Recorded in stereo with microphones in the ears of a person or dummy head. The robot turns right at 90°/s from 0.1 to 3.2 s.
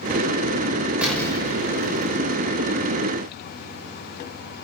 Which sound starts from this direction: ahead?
An explosion, at 1.0 s.